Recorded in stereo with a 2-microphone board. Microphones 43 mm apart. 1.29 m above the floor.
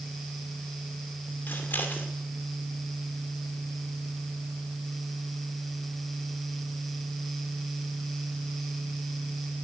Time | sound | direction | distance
1.5 | scissors | 50° left (ahead or behind) | 2 m